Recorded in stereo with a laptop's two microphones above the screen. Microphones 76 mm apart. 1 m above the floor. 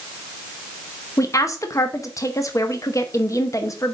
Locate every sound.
1.2 s a woman speaking: 45° left (ahead or behind), 0.9 m